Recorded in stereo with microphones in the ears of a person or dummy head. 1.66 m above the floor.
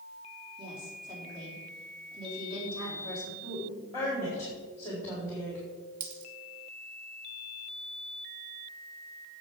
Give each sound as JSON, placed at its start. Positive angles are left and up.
{"t": 0.6, "sound": "a woman speaking", "side_deg": -20, "distance_m": 4.0}
{"t": 3.4, "sound": "a woman speaking", "side_deg": 10, "distance_m": 4.0}
{"t": 6.0, "sound": "a dropped coin", "side_deg": -60, "distance_m": 2.5}